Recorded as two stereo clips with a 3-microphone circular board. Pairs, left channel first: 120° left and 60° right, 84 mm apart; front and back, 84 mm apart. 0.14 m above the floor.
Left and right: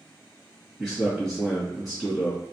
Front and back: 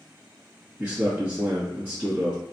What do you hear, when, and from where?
0.8 s a man speaking: 155° right, 1.5 m